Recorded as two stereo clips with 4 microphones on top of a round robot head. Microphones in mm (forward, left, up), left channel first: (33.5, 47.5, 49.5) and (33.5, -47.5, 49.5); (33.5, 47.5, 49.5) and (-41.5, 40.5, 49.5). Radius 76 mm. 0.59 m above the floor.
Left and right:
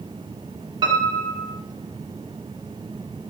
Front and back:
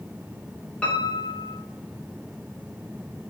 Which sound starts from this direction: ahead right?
A piano, at 0.8 s.